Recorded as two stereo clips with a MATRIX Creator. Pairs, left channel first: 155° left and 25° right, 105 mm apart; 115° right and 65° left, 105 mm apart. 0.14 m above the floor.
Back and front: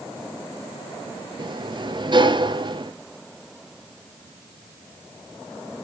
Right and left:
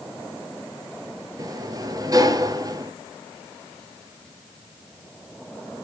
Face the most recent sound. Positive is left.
turn(degrees=15)